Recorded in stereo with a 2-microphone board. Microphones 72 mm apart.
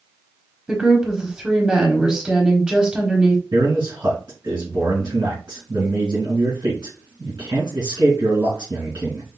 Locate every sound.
0.7 s a woman speaking: 10° right (ahead or behind), 1.1 m
3.5 s a man speaking: 70° right (ahead or behind), 2.5 m